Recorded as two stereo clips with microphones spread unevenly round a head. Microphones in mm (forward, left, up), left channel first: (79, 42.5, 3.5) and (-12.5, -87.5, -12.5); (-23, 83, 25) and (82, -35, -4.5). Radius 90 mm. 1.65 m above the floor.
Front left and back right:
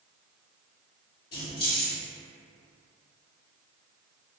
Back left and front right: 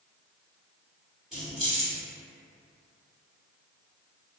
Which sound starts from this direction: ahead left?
Keys jangling, at 1.3 s.